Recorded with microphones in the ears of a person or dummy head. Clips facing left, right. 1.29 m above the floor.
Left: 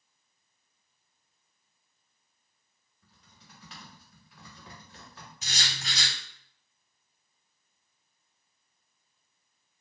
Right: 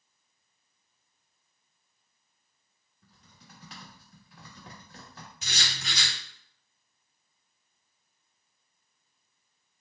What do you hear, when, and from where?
3.0 s typing on a keyboard: 35° right (ahead or behind), 1.0 m
5.4 s writing: 55° right (ahead or behind), 1.9 m